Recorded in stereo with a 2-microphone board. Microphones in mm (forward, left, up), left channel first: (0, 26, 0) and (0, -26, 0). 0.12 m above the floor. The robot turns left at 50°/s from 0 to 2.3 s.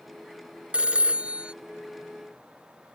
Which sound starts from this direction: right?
A phone ringing, at 0.7 s.